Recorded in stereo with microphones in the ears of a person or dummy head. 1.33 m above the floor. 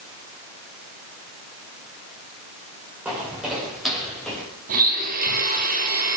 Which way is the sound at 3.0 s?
10° right (ahead or behind).